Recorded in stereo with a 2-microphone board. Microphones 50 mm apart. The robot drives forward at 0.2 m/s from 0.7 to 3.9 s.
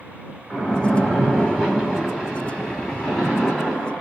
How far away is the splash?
About 1.4 m.